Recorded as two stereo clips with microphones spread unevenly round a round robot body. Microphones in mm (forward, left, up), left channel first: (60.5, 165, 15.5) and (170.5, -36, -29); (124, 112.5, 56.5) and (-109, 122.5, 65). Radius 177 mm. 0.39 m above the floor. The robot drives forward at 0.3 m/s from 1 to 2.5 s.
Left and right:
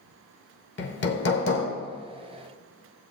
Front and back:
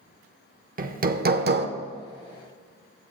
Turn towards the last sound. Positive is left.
turn(degrees=160)